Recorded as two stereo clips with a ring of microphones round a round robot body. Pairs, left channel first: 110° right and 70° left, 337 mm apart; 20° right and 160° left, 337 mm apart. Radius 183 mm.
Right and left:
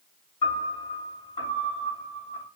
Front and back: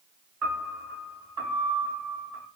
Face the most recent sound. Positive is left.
turn(degrees=180)